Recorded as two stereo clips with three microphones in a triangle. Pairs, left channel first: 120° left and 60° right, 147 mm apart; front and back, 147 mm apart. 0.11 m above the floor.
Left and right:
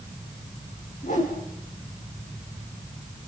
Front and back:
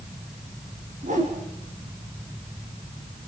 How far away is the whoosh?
About 4.5 m.